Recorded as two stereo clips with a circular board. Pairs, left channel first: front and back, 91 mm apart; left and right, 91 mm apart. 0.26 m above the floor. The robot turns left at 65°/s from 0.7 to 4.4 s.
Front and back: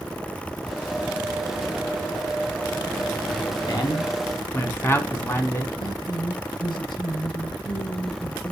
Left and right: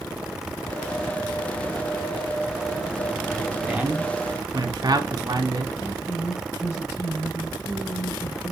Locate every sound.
3.7 s a man speaking: 10° right, 2.5 m; by 5.7 s 60° right, 2.5 m
5.8 s a woman speaking: 30° left, 5.5 m